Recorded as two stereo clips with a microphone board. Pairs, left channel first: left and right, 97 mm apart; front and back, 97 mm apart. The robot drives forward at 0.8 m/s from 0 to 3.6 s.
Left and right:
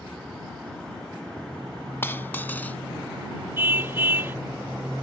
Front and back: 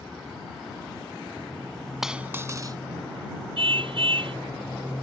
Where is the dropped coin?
95° left; by 2.8 s 155° left.